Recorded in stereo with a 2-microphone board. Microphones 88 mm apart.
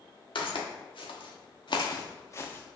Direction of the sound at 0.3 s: 80° left.